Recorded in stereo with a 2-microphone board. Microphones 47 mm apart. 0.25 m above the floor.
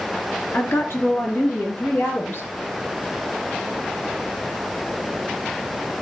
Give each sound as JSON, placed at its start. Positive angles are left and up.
{"t": 0.5, "sound": "a woman speaking", "side_deg": 65, "distance_m": 3.0}